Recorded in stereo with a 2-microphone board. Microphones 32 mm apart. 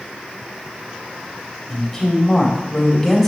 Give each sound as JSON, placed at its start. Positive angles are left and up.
{"t": 1.7, "sound": "a woman speaking", "side_deg": 10, "distance_m": 3.5}